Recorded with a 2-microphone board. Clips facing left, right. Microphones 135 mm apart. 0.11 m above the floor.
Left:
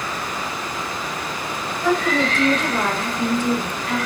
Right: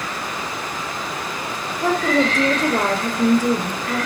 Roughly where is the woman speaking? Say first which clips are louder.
Right 2 dB; right.